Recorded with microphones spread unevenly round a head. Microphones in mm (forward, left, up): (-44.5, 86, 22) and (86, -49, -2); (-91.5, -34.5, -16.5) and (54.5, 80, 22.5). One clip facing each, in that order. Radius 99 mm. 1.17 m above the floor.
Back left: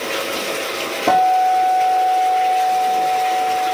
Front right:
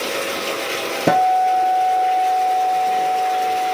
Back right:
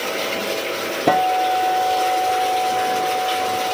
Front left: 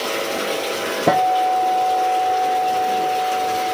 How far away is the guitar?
About 0.7 m.